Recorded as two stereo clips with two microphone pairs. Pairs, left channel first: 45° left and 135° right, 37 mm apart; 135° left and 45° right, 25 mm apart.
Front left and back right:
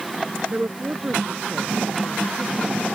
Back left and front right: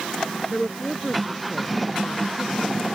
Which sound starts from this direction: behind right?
A woman speaking, at 0.5 s.